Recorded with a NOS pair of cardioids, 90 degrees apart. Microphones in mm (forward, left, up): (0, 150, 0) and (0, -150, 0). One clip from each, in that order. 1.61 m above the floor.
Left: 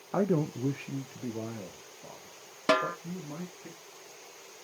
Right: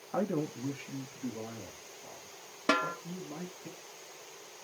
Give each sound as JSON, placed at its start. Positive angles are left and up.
{"t": 0.1, "sound": "a man speaking", "azimuth_deg": 20, "distance_m": 0.6}
{"t": 2.7, "sound": "a snare drum", "azimuth_deg": 10, "distance_m": 0.7}